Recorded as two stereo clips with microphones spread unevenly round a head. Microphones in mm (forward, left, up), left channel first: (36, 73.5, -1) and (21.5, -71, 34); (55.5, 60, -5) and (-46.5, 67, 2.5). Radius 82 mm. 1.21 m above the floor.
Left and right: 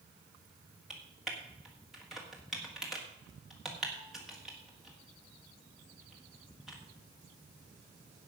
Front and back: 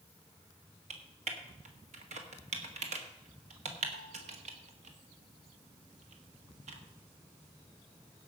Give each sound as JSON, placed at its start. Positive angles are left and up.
{"t": 0.9, "sound": "typing on a keyboard", "azimuth_deg": 175, "distance_m": 1.6}